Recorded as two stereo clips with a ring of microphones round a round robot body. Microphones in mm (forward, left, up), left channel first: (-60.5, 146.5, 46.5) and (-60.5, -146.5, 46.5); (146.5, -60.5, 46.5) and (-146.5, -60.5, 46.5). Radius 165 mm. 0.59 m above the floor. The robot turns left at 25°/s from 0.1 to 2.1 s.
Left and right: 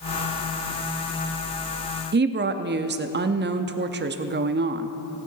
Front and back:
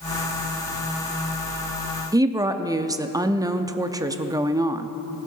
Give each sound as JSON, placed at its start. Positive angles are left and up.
{"t": 2.1, "sound": "a woman speaking", "azimuth_deg": -110, "distance_m": 0.7}